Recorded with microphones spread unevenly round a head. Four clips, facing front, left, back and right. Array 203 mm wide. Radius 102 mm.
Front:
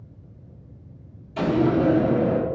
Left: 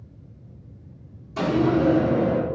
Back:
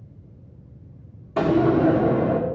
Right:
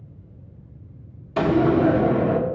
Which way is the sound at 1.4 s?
150° right.